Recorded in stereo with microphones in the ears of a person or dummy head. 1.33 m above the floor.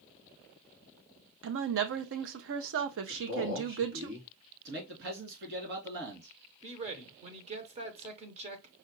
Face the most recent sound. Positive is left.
turn(degrees=-30)  # may be behind; listen again after turning